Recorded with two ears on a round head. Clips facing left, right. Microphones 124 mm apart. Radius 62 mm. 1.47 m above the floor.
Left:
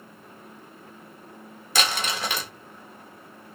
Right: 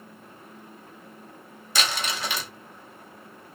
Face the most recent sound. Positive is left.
turn(degrees=40)  # may be behind; listen again after turning